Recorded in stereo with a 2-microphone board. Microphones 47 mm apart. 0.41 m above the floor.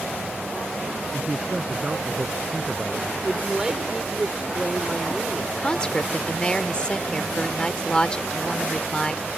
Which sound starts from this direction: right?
A man speaking, at 1.1 s.